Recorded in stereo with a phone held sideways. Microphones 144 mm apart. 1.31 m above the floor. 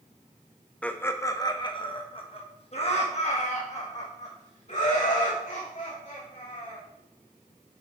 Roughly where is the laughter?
Centre.